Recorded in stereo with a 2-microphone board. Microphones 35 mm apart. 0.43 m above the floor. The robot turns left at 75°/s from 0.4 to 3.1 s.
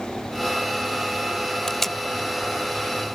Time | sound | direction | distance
1.7 | tape being pulled | 15° left (ahead or behind) | ?